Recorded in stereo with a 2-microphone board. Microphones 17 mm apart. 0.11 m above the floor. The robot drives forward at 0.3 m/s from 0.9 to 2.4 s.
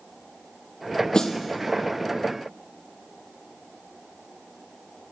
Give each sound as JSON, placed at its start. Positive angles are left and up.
{"t": 1.1, "sound": "a snare drum", "side_deg": 55, "distance_m": 1.0}